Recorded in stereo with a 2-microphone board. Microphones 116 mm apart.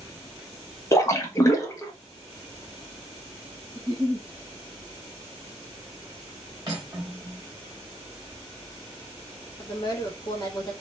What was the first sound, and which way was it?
A splash, 25° left (ahead or behind).